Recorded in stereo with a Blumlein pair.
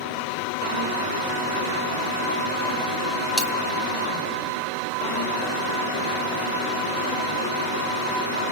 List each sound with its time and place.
3.4 s a dropped coin: 15° left, 3.5 m